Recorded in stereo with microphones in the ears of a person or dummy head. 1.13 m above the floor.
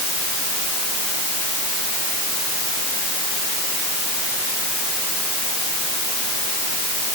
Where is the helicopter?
No helicopter in this recording.